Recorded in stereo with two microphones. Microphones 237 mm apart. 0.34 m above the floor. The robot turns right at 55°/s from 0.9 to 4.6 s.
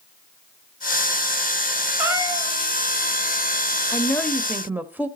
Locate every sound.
2.0 s a cat meowing: 175° right, 1.9 m; by 2.5 s 145° right, 1.9 m
3.9 s a woman speaking: 155° left, 1.0 m; by 5.1 s 170° right, 1.0 m